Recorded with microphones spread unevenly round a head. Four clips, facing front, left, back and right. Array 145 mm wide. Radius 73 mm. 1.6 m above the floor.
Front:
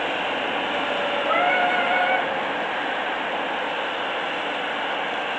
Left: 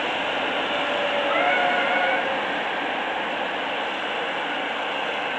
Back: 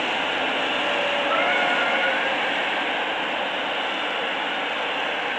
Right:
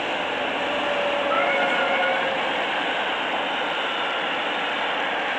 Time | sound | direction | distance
1.3 | singing | 10° left | 2.5 m